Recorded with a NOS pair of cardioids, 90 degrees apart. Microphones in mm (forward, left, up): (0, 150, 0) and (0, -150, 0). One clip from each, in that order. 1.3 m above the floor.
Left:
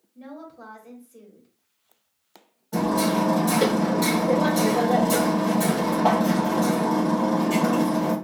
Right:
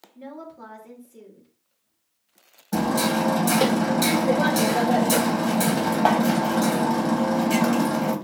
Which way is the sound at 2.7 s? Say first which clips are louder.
Even; 45° right.